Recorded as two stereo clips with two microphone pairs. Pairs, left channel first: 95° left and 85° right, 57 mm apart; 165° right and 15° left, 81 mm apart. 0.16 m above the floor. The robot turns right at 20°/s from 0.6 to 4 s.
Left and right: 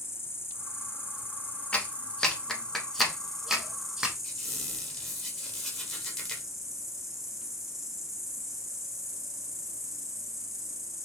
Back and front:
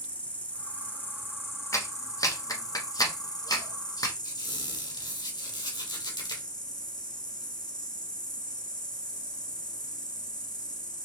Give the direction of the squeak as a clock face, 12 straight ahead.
6 o'clock.